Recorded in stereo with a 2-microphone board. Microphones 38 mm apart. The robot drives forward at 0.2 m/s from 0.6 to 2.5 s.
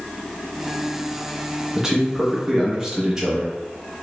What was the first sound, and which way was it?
A man speaking, 15° right (ahead or behind).